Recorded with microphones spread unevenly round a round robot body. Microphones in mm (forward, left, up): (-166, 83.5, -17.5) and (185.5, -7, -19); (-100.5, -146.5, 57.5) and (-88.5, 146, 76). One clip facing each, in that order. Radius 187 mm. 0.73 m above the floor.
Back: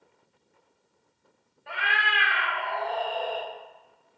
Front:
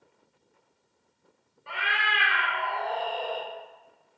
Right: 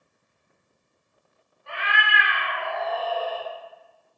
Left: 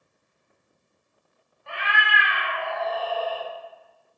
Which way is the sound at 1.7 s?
70° left.